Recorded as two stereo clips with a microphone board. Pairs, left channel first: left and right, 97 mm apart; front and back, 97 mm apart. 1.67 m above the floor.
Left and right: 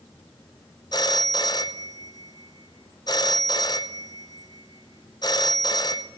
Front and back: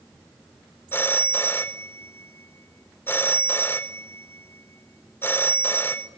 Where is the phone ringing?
60° left, 0.9 m.